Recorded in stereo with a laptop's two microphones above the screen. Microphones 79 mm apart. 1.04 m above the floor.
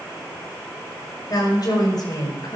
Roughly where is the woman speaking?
Left.